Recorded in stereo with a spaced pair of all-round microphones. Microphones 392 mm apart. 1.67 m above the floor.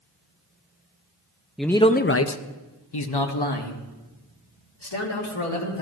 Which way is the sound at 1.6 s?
Centre (ahead or behind).